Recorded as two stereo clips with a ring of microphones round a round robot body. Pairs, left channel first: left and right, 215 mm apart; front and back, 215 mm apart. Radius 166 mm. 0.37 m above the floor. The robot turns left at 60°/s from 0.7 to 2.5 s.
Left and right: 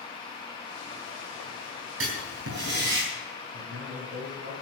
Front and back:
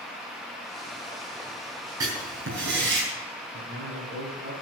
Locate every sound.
2.0 s writing: 105° right, 4 m; by 3.0 s 135° right, 4 m
3.5 s a man speaking: 125° right, 3 m